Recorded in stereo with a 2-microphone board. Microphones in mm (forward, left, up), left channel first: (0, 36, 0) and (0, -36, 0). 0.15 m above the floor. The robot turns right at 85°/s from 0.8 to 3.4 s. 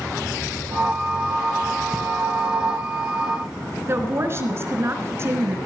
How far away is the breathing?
About 3 m.